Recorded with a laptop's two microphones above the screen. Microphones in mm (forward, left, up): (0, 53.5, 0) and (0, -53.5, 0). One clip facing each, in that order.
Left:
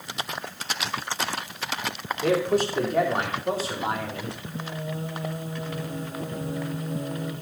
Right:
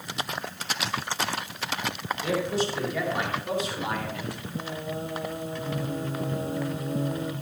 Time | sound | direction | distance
2.2 | a man speaking | 50° left (ahead or behind) | 2.5 m
4.4 | singing | 25° right (ahead or behind) | 1.5 m